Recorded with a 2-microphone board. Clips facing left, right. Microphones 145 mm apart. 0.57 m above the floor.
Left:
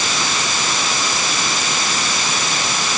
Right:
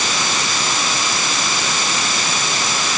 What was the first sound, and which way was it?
Only background noise.